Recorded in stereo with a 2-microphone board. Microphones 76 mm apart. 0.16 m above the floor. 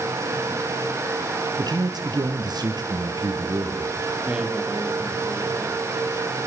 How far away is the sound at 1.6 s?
About 4 m.